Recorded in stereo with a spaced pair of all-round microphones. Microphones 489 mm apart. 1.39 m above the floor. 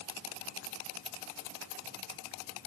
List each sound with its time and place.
Only background noise.